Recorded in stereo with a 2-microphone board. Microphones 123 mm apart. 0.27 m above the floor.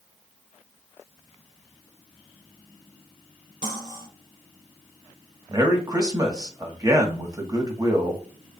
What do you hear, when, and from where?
3.6 s cutlery clinking: 80° right, 3.5 m
5.5 s a man speaking: 30° right (ahead or behind), 1.2 m